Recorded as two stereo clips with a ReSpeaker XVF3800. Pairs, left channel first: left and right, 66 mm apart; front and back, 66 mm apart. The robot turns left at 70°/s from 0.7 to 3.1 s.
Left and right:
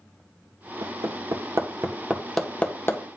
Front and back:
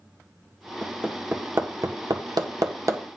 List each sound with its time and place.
0.8 s hammering: 75° right, 1.8 m; by 3.0 s 135° left, 1.8 m